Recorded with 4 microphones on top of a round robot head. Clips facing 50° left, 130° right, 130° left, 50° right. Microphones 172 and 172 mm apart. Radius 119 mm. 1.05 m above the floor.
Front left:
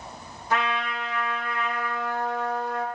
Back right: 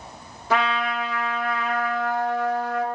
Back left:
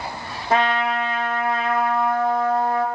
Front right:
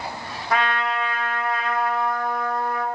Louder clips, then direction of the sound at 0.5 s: Back right 4 dB, back left 4 dB; 160° right.